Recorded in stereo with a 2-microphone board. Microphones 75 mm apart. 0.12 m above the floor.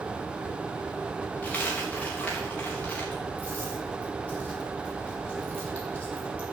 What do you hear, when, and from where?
1.4 s a dropped coin: 20° left (ahead or behind), 4 m